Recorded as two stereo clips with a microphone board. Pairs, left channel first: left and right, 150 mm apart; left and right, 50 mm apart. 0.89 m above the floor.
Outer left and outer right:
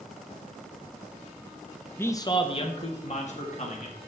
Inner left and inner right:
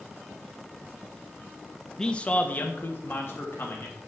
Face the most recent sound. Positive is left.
turn(degrees=55)  # may be behind; listen again after turning